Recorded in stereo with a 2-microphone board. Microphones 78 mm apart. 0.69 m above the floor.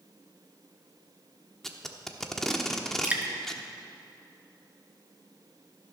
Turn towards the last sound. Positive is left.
turn(degrees=-20)  # may be behind; listen again after turning